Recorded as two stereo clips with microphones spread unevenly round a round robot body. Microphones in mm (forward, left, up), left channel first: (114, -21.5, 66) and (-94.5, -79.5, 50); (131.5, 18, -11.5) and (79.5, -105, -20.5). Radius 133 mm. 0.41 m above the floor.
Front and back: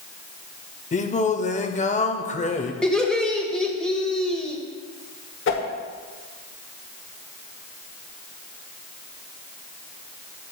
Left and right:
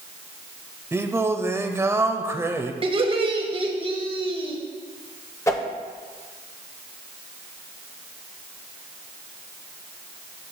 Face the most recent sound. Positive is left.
turn(degrees=0)